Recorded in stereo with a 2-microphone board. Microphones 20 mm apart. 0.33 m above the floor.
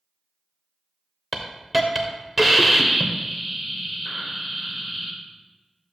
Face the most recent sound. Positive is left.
turn(degrees=-5)  # may be behind; listen again after turning